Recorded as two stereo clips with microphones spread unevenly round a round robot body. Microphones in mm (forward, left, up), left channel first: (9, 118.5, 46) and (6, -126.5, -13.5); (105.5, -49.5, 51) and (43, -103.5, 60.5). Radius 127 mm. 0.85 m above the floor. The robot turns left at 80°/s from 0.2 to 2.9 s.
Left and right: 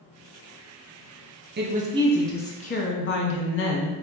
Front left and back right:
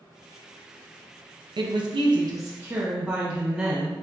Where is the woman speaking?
115° right, 0.8 m; by 4.0 s 135° left, 0.8 m.